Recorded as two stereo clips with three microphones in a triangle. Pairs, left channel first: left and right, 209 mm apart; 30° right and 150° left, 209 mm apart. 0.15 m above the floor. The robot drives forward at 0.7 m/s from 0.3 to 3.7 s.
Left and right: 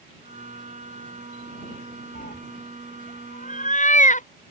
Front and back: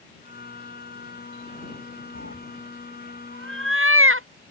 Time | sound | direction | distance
2.1 | a cat meowing | 140° left | ?